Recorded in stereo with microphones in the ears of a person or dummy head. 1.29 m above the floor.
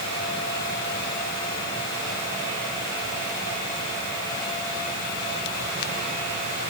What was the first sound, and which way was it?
Only background noise.